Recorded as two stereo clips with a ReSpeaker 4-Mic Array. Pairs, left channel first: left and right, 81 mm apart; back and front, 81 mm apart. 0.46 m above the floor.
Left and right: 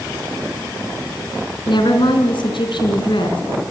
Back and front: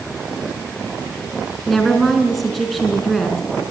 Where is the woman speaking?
90° left, 4.5 m.